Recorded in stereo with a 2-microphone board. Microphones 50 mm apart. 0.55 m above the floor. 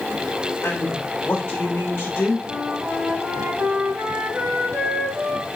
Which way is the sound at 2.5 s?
50° right (ahead or behind).